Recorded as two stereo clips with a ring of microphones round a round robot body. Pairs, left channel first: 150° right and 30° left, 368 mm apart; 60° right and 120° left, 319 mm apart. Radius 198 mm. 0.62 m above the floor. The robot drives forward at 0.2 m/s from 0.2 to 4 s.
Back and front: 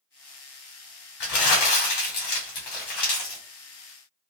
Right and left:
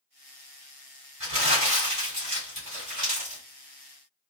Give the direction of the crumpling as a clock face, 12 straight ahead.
6 o'clock.